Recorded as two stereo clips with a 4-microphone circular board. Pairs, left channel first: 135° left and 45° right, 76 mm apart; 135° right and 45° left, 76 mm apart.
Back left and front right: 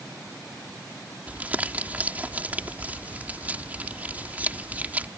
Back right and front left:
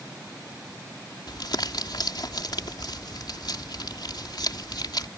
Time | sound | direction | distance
1.3 | crumpling | 115° right | ?